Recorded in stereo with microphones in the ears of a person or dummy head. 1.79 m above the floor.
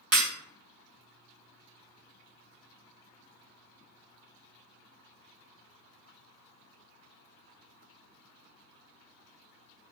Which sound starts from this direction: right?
Breaking glass, at 0.1 s.